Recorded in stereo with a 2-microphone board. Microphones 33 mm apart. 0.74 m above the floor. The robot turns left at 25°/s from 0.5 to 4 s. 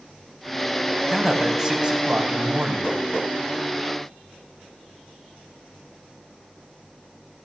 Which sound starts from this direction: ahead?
A man speaking, at 1.1 s.